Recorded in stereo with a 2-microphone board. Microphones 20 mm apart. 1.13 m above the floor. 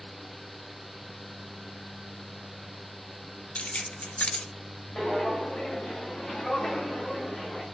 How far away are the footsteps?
About 5.5 m.